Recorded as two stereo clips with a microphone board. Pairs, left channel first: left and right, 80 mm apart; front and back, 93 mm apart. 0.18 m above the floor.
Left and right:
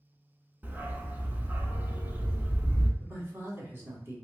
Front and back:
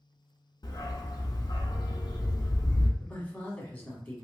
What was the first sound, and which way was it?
A dog barking, 25° right.